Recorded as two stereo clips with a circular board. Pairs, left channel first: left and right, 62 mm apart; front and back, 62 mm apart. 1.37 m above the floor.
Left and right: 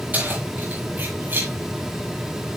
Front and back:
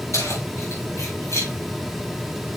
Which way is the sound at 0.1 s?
30° right.